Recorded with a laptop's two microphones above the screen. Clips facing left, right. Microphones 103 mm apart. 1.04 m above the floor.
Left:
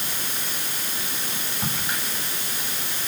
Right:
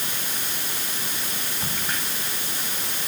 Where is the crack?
10° left (ahead or behind), 6 m.